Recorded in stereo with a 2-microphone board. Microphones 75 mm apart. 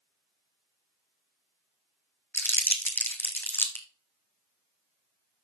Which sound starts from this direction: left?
Crumpling, at 2.3 s.